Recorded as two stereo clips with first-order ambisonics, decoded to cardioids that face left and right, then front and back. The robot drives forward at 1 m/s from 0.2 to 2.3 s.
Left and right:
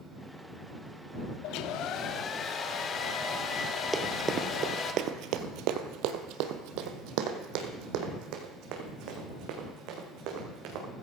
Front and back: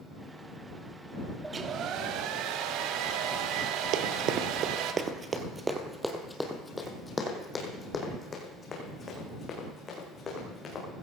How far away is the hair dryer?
About 0.6 m.